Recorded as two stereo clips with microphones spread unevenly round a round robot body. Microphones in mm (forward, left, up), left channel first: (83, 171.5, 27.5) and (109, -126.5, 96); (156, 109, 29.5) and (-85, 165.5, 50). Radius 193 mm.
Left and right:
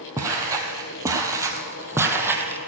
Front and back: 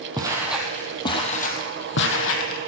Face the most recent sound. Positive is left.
turn(degrees=-15)